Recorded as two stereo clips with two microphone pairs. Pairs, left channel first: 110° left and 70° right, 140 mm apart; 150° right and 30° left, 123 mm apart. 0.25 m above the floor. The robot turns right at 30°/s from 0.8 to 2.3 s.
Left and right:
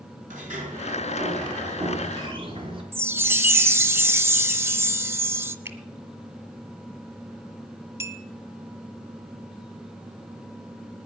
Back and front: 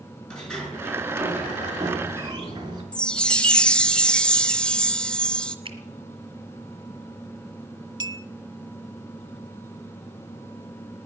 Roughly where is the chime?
Right.